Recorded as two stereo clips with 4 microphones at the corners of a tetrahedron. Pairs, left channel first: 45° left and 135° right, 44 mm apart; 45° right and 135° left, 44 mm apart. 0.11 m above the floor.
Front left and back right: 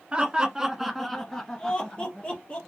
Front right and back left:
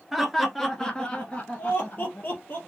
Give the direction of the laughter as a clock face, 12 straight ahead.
5 o'clock.